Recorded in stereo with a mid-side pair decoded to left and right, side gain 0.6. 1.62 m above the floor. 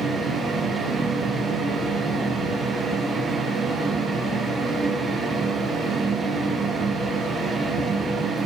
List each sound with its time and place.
0.0 s a fan: 30° right, 1.2 m